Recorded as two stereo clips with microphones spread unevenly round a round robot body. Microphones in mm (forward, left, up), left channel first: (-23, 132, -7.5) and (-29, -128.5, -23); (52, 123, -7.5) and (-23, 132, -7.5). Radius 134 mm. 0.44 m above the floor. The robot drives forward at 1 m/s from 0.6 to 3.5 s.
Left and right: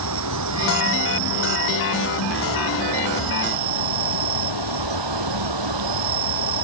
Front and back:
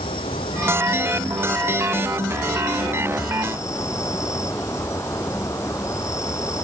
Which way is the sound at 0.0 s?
55° right.